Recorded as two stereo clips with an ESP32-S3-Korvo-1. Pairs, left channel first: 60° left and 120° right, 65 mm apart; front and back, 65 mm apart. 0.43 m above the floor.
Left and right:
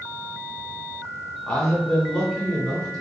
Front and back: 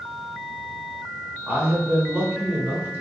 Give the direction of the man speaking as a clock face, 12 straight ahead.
8 o'clock.